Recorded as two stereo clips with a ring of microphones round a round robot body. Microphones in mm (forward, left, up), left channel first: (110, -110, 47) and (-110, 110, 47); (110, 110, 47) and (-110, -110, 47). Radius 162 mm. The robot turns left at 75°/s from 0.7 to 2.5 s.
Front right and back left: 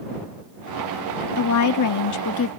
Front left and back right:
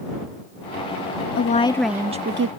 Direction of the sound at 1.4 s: 5° right.